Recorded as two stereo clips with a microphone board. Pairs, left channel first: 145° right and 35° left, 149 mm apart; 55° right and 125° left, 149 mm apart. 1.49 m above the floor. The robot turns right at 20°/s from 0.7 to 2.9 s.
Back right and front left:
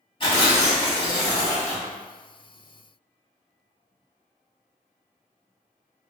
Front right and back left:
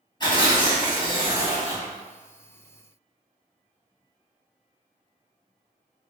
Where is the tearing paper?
105° right, 1.2 m; by 1.9 s 80° right, 1.2 m.